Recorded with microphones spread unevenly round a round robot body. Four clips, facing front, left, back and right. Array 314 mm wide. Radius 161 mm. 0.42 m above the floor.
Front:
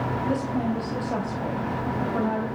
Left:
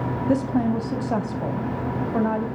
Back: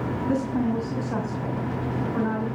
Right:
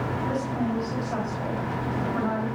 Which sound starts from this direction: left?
A woman speaking, at 0.3 s.